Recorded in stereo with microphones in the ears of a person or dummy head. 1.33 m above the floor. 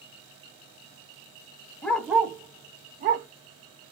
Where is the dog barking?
5° left (ahead or behind), 0.7 m; by 3.3 s 50° right (ahead or behind), 1.0 m.